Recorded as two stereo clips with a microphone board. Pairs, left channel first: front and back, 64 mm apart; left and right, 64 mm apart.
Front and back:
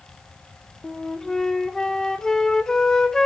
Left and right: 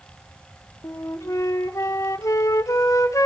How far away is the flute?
About 0.7 m.